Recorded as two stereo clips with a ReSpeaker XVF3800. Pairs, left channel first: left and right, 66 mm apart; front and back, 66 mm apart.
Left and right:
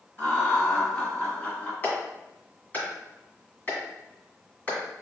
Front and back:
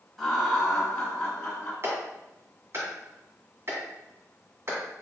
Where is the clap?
145° left, 1.9 m.